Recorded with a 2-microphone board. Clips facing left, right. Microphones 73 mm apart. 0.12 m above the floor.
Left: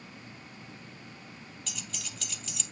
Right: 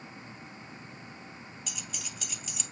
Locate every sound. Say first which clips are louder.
1.7 s keys jangling: left 1 dB; 10° right (ahead or behind), 2 m